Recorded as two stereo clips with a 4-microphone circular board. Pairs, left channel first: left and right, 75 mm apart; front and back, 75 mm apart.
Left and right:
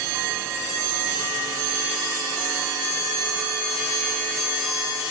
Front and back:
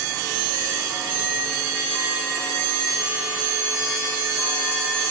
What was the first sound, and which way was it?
Only background noise.